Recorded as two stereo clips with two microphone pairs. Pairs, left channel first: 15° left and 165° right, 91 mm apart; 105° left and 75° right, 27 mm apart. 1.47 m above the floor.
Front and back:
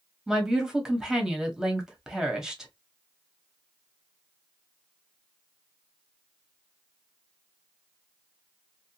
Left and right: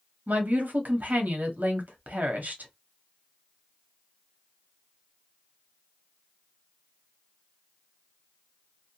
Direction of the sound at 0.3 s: 85° right.